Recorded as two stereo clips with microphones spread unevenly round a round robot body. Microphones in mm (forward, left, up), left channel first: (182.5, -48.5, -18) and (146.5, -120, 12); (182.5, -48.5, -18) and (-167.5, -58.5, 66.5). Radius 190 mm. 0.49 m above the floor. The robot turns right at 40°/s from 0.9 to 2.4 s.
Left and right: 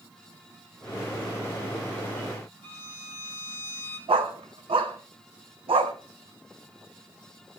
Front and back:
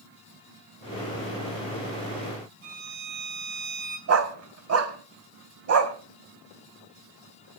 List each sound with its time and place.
2.6 s a violin: 165° right, 4.5 m
4.1 s a dog barking: 125° right, 1.7 m